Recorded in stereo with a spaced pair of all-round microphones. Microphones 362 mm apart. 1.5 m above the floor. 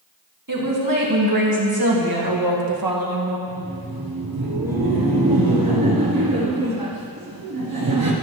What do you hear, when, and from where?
0.5 s a woman speaking: 60° right (ahead or behind), 2 m
3.5 s laughter: 75° right (ahead or behind), 0.9 m